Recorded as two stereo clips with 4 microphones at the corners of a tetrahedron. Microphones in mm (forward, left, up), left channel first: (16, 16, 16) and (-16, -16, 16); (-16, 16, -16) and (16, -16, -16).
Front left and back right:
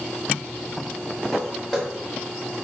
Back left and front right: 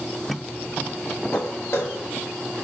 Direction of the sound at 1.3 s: 130° left.